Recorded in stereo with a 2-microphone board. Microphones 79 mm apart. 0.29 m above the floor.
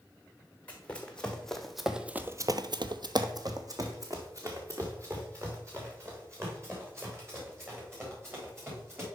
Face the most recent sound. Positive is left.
turn(degrees=-35)  # may be behind; listen again after turning